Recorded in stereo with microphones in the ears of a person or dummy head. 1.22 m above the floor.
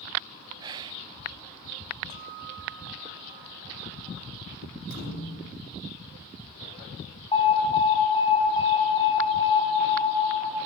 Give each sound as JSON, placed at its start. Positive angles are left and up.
{"t": 0.6, "sound": "whispering", "side_deg": -20, "distance_m": 0.5}
{"t": 2.1, "sound": "a guitar", "side_deg": -30, "distance_m": 2.5}
{"t": 4.9, "sound": "a thud", "side_deg": 50, "distance_m": 5.0}
{"t": 7.3, "sound": "an alarm", "side_deg": 20, "distance_m": 5.5}